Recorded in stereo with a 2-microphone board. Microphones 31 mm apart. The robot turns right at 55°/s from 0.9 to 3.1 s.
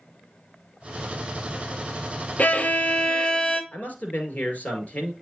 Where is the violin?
115° left, 0.7 m; by 3.6 s 155° left, 0.7 m.